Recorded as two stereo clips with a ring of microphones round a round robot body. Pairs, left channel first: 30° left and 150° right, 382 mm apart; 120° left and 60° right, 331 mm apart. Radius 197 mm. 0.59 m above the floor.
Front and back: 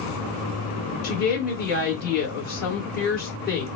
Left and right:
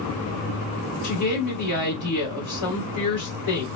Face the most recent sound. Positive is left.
turn(degrees=95)